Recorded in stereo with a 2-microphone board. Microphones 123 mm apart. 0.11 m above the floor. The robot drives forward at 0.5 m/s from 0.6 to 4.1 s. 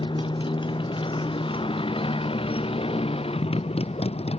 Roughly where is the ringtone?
I don't hear a ringtone.